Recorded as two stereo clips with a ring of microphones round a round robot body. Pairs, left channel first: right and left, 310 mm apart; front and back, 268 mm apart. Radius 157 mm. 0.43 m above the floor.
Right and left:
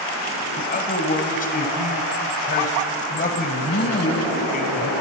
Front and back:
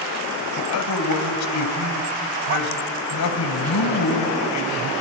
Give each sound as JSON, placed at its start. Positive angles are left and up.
{"t": 0.6, "sound": "a man speaking", "azimuth_deg": -25, "distance_m": 2.0}